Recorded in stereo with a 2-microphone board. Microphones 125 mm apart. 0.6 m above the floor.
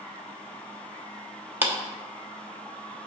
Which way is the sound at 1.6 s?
15° right (ahead or behind).